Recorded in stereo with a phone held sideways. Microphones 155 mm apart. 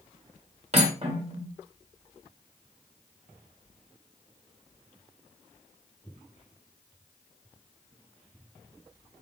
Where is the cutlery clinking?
40° right (ahead or behind), 1.2 m.